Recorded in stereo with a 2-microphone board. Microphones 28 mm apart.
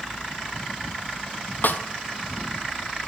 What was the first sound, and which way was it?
A snare drum, 75° left (ahead or behind).